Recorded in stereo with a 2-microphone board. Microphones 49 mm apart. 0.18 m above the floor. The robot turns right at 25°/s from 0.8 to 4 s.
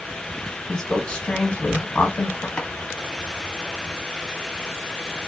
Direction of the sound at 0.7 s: 40° left.